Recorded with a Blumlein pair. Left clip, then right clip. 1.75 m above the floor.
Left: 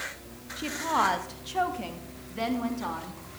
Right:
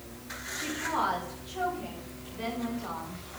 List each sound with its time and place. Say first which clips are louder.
0.6 s a woman speaking: left 4 dB; 20° left, 1.9 m; by 3.2 s 45° left, 3.5 m